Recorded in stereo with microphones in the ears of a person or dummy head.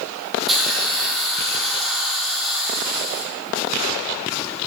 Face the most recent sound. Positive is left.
turn(degrees=0)  # may be behind; listen again after turning